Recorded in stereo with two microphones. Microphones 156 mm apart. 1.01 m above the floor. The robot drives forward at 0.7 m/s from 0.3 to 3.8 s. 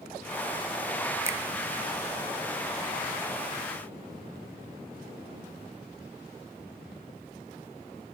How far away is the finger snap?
About 0.6 m.